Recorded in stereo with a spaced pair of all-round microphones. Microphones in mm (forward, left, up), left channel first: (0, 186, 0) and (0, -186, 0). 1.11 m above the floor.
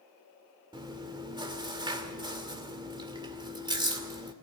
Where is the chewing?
10° right (ahead or behind), 2 m.